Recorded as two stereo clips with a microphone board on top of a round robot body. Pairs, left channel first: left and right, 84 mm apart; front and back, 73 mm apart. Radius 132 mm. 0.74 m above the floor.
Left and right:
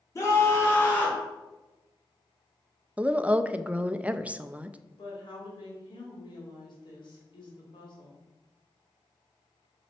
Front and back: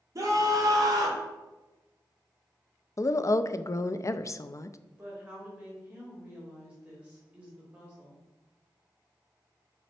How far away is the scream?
About 2 m.